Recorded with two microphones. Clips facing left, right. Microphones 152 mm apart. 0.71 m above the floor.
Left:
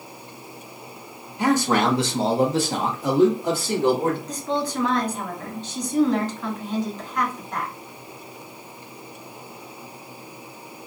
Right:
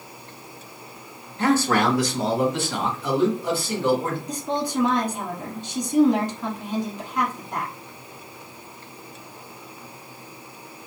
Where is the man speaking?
10° left (ahead or behind), 0.9 m; by 4.2 s 50° left (ahead or behind), 1.5 m.